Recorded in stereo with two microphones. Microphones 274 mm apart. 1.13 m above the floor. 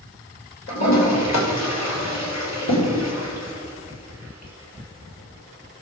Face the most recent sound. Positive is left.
turn(degrees=75)  # may be behind; listen again after turning